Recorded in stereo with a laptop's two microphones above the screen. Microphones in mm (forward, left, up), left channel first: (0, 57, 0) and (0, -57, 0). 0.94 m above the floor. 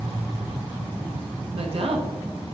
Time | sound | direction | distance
1.5 | a woman speaking | 55° right (ahead or behind) | 1.3 m